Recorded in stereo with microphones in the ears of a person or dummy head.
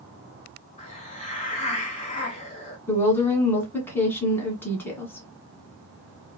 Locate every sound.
0.8 s a hiss: 30° left (ahead or behind), 1.0 m
2.9 s a woman speaking: 10° left (ahead or behind), 1.5 m